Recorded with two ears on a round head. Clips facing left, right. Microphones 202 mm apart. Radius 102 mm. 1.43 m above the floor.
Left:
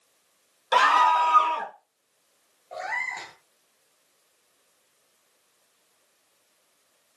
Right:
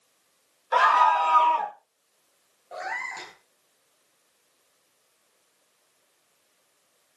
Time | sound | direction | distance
0.7 | a scream | 45° left (ahead or behind) | 2 m
2.7 | a cat meowing | 10° right (ahead or behind) | 6 m